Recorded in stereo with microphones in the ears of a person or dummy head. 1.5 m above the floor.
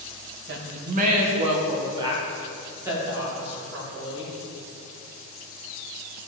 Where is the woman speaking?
70° right (ahead or behind), 1.9 m; by 4.3 s 5° right (ahead or behind), 5.5 m.